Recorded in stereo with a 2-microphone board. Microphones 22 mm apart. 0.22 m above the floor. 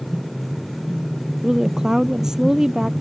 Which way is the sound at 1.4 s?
25° right (ahead or behind).